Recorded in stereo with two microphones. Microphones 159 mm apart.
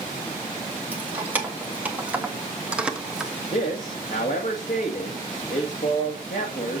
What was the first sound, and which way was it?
Keys jangling, 10° right (ahead or behind).